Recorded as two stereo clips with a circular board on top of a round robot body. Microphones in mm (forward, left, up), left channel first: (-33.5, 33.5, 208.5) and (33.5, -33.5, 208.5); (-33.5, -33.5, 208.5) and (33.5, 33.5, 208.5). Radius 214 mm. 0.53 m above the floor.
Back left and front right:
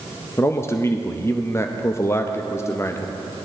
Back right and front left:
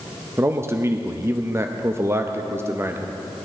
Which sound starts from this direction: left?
A man speaking, at 0.4 s.